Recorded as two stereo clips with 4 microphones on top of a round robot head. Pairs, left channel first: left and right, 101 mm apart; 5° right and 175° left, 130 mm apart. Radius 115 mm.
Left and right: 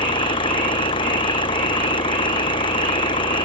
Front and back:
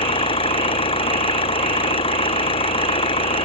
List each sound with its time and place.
0.0 s an engine running: 40° left